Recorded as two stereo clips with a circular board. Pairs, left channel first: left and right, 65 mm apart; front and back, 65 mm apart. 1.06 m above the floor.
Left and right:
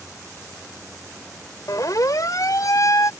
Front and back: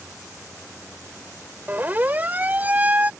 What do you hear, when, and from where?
1.7 s a siren: 120° left; by 3.1 s 115° left